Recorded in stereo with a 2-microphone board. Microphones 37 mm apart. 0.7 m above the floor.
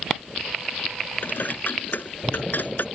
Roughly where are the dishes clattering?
Left.